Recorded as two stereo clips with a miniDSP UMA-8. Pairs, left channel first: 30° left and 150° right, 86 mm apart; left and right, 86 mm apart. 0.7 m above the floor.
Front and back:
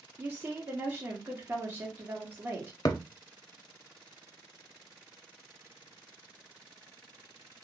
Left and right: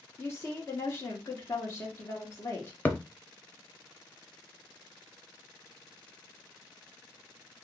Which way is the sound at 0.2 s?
145° left.